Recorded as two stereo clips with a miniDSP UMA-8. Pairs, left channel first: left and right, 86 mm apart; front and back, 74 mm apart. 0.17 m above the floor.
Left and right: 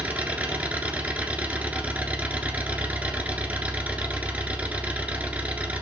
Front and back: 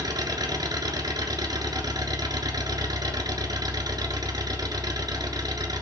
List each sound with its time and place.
0.0 s an engine running: 165° right, 1.8 m